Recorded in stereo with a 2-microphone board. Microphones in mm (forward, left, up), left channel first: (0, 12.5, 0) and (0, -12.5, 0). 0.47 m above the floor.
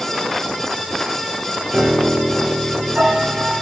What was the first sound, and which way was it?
A piano, 60° right (ahead or behind).